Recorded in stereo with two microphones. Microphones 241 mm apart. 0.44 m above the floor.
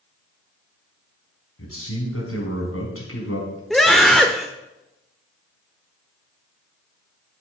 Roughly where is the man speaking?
Left.